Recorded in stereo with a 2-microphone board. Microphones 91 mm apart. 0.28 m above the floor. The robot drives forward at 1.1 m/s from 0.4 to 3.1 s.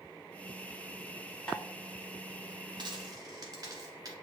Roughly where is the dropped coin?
Right.